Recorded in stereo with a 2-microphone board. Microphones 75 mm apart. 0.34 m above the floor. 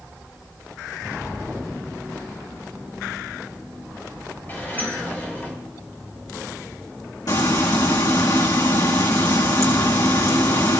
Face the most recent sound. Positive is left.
turn(degrees=65)  # may be behind; listen again after turning